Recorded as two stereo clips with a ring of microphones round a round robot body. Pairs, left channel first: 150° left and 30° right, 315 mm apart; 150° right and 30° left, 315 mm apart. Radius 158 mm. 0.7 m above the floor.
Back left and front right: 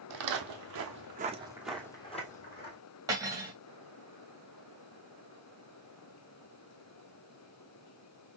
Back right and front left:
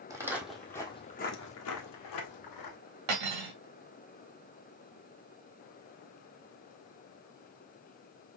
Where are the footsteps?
50° right, 1.8 m; by 2.8 s 155° right, 1.9 m.